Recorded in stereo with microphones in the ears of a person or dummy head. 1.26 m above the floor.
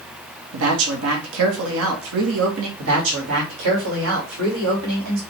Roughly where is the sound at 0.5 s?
Right.